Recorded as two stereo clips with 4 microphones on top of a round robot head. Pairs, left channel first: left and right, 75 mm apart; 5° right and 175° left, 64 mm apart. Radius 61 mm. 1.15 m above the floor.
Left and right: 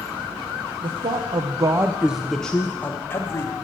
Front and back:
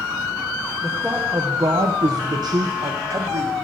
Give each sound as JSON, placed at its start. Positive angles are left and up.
{"t": 0.8, "sound": "a man speaking", "azimuth_deg": -100, "distance_m": 0.7}